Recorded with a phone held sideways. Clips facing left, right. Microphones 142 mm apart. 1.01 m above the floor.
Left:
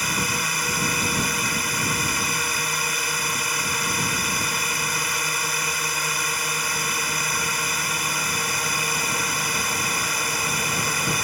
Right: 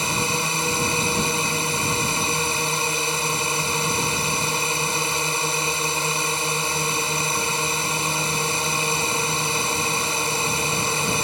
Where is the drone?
25° right (ahead or behind).